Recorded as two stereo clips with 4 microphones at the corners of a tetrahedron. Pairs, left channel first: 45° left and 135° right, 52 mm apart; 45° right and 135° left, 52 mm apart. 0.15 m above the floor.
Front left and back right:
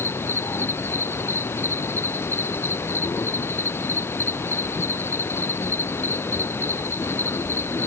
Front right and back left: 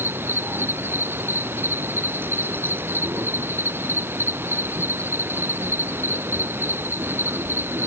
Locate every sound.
0.0 s an insect: 85° left